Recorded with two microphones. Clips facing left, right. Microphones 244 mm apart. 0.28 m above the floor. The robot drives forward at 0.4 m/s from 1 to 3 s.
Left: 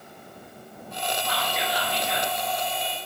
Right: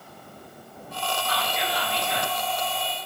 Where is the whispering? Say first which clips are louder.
Even; 20° left (ahead or behind), 0.9 m; by 2.3 s 15° left (ahead or behind), 1.0 m.